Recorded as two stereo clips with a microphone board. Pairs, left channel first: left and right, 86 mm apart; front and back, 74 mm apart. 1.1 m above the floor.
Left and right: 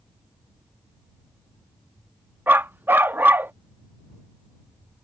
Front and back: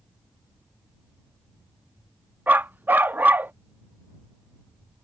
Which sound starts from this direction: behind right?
A dog barking, at 2.5 s.